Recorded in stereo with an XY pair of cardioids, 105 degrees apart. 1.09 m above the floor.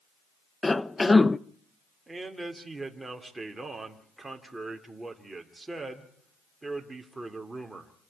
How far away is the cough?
About 0.5 m.